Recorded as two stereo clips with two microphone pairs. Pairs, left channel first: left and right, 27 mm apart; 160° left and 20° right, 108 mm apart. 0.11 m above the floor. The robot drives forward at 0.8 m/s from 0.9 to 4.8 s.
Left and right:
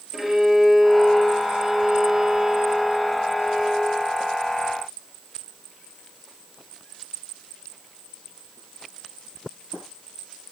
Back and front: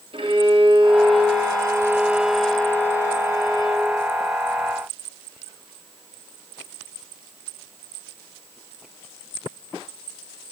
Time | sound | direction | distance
0.1 | a violin | 15° right | 1.4 m